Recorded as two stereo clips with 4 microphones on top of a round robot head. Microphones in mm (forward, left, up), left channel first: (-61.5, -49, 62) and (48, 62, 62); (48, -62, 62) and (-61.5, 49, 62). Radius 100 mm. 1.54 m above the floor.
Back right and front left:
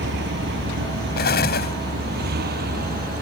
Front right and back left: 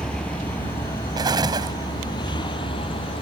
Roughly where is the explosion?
Behind.